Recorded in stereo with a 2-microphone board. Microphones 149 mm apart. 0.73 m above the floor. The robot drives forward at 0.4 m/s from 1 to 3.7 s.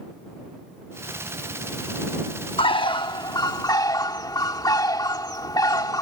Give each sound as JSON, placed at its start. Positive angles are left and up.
{"t": 2.6, "sound": "a bird", "side_deg": 35}